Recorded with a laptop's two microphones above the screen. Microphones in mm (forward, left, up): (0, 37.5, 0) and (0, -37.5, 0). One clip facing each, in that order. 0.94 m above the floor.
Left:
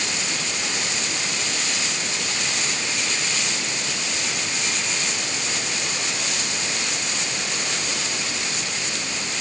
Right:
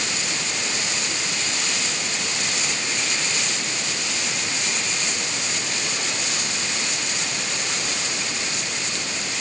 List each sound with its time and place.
Only background noise.